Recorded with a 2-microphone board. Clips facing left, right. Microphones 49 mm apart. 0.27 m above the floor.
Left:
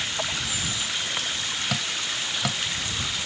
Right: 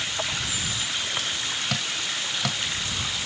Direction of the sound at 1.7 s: 5° left (ahead or behind).